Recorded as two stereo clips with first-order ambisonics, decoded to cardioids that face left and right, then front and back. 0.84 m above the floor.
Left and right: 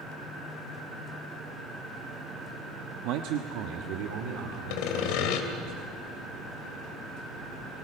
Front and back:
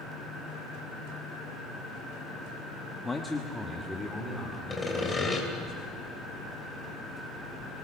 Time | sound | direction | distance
3.0 | a man speaking | 80° right | 1.1 m
4.7 | sawing | 80° left | 3 m